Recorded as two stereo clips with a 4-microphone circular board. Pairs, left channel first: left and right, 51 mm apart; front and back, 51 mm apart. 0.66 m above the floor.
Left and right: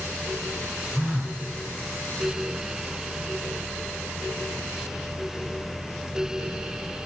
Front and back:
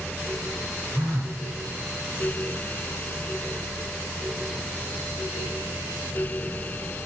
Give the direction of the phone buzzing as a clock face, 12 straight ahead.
5 o'clock.